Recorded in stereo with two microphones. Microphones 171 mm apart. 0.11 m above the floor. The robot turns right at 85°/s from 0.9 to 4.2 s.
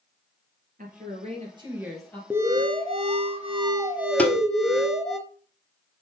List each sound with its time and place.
0.8 s a woman speaking: 90° right, 2.5 m; by 2.2 s 20° left, 2.5 m
2.3 s an alarm: 160° right, 0.9 m; by 5.2 s straight ahead, 0.9 m
4.2 s tapping: 10° left (ahead or behind), 1.0 m